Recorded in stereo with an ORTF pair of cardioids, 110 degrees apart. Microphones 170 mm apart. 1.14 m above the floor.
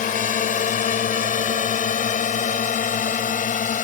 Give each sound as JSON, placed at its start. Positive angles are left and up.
{"t": 0.0, "sound": "a drone", "azimuth_deg": 50}